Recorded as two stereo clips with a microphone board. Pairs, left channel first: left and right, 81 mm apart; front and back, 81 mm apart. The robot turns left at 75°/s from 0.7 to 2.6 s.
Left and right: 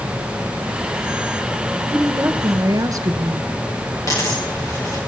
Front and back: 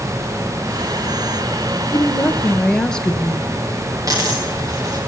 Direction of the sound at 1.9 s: 25° right.